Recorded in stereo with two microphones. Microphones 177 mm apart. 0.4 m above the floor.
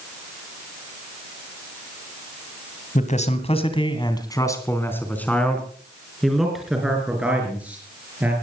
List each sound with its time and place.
3.0 s a man speaking: 45° left (ahead or behind), 2.5 m; by 8.3 s 10° right (ahead or behind), 6.5 m